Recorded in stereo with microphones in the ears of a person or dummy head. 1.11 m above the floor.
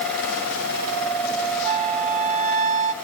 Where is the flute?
35° right (ahead or behind), 0.9 m.